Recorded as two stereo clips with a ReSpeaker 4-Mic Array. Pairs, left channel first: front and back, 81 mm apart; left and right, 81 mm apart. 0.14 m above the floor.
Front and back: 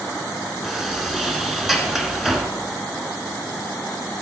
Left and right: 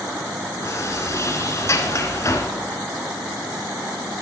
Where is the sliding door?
95° left, 1.4 m.